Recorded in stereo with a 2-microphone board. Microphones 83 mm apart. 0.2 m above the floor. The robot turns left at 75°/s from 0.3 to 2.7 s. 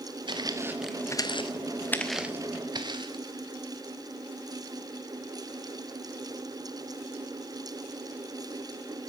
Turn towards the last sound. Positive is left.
turn(degrees=-65)  # may be behind; listen again after turning